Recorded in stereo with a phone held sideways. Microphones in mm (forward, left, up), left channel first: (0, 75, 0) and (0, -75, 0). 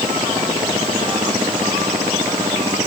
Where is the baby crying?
I don't hear a baby crying.